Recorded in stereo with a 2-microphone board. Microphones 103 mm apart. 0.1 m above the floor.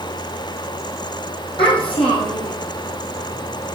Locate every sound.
1.6 s a child speaking: 55° left (ahead or behind), 3.5 m